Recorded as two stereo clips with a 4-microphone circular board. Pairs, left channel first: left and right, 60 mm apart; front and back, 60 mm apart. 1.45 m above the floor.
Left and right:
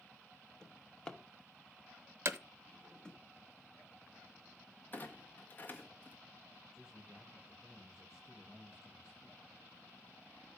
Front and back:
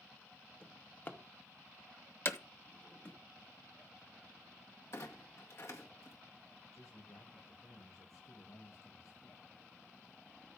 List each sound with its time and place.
0.6 s a drawer: 25° left, 0.9 m
2.2 s hammering: 45° right, 0.7 m
4.9 s a clunk: 35° left, 1.6 m
6.7 s a man speaking: 10° right, 6.5 m